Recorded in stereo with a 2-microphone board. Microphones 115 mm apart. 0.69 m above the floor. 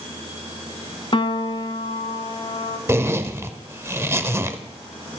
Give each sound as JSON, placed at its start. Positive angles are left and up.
{"t": 1.1, "sound": "a piano", "side_deg": 45, "distance_m": 0.8}
{"t": 2.9, "sound": "a zipper", "side_deg": -20, "distance_m": 0.8}